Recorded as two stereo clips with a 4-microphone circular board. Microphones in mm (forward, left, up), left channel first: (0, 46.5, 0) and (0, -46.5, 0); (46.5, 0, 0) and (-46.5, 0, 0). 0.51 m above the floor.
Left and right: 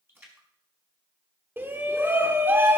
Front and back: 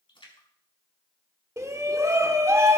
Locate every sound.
0.1 s a splash: 25° right, 5 m
1.6 s a shout: 145° right, 1.2 m